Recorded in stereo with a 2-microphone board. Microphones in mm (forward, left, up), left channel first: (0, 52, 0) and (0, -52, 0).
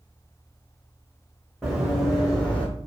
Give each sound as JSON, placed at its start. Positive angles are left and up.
{"t": 1.6, "sound": "running footsteps", "side_deg": 0, "distance_m": 2.5}